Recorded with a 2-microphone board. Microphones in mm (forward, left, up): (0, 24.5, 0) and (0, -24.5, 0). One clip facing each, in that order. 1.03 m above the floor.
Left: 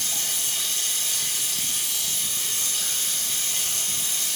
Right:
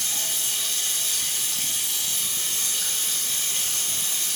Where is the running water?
30° right (ahead or behind), 1.7 m.